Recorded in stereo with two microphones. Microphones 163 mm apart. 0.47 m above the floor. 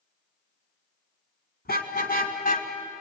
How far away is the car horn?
About 2.5 m.